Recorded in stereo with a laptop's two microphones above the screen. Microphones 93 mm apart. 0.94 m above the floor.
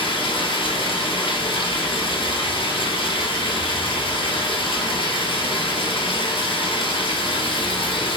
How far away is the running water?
About 1.0 m.